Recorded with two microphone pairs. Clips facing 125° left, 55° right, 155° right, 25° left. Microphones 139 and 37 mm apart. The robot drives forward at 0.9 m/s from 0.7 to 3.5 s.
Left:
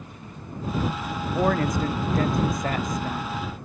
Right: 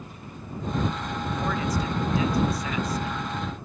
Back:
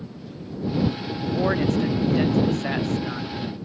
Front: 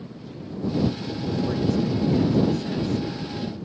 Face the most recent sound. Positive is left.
turn(degrees=165)